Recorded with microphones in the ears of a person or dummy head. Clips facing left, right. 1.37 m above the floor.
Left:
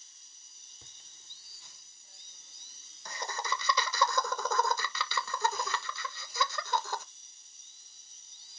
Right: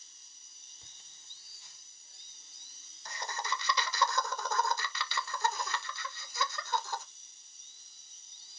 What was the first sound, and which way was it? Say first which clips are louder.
Laughter: left 3 dB; 80° left.